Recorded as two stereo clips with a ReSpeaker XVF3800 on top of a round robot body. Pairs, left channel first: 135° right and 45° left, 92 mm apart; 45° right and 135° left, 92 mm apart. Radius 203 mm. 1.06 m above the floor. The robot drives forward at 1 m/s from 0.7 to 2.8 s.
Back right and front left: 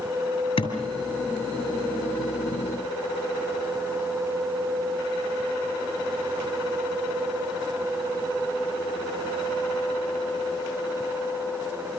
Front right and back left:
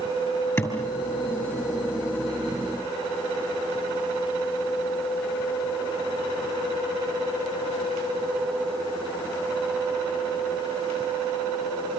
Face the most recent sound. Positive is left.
turn(degrees=-125)